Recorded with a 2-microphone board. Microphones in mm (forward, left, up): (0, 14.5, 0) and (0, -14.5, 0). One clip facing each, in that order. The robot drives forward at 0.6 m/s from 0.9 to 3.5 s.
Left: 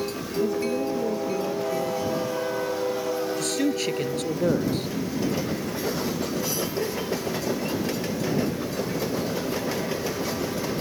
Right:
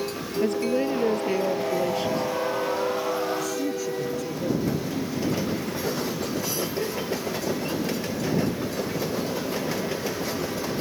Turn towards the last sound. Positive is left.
turn(degrees=75)  # may be behind; listen again after turning